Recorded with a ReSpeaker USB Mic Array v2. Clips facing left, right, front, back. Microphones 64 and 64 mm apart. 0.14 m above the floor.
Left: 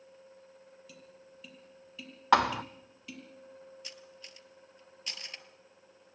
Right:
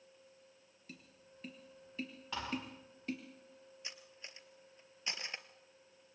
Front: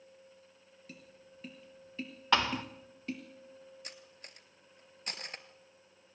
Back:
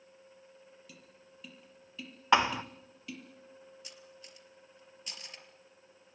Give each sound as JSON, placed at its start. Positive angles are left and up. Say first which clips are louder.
{"t": 0.9, "sound": "tapping", "louder": "left 4 dB, front 2 dB", "azimuth_deg": -45, "distance_m": 4.0}
{"t": 2.3, "sound": "a thud", "louder": "left 17 dB, back 3 dB", "azimuth_deg": 110, "distance_m": 1.1}
{"t": 3.8, "sound": "cutlery clinking", "louder": "left 3 dB, even", "azimuth_deg": -30, "distance_m": 1.9}